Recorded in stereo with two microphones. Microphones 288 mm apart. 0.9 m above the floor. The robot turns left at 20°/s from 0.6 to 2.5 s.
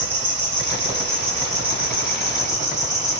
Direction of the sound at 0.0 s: 80° right.